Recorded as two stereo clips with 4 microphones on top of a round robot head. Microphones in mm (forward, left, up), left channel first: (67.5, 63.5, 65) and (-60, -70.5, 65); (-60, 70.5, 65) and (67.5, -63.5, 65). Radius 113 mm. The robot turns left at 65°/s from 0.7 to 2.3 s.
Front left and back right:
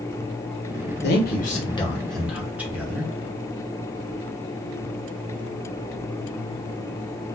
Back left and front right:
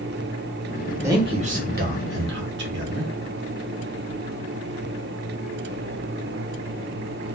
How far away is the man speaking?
About 1.0 m.